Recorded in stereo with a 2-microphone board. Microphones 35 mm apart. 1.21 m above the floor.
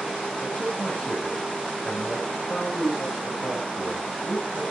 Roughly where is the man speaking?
Left.